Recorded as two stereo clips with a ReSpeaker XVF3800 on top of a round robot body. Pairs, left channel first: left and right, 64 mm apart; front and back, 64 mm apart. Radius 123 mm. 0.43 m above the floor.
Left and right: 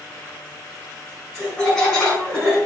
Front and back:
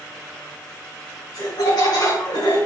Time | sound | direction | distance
1.3 | laughter | 15° left | 3.5 m